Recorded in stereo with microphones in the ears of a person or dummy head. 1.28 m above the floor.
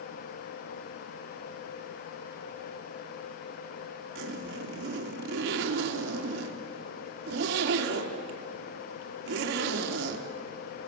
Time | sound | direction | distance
4.2 | a zipper | 70° right (ahead or behind) | 2.5 m